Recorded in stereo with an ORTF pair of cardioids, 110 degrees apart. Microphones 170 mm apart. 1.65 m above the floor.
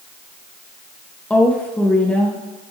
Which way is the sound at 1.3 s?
5° left.